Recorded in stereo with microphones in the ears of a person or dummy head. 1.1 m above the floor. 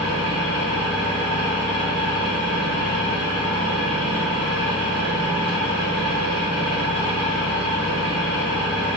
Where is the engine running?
5° left (ahead or behind), 1.9 m.